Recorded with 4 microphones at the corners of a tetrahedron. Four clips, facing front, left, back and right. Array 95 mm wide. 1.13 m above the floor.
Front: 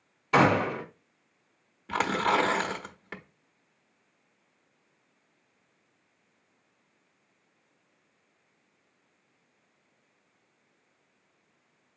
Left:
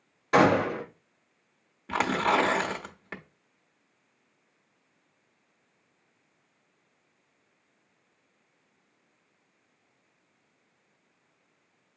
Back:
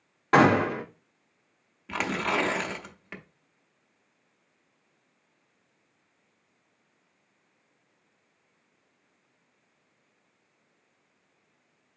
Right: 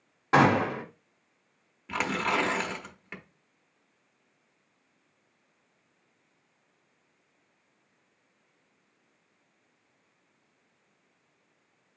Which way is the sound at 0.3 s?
160° right.